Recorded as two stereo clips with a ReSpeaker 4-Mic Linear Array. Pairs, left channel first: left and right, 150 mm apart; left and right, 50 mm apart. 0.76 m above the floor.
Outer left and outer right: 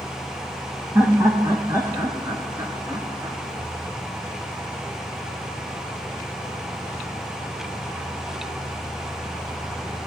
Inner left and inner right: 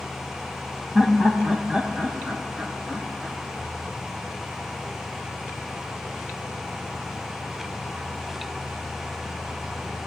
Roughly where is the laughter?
Centre.